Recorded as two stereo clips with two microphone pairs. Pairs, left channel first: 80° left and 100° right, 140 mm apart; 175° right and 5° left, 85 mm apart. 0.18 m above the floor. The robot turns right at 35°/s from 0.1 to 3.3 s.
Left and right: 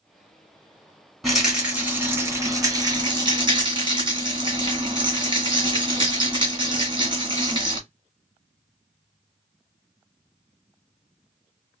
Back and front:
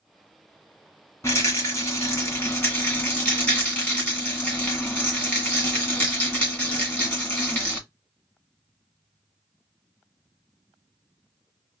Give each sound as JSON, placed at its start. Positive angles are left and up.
{"t": 1.2, "sound": "a rattle", "azimuth_deg": 170, "distance_m": 1.7}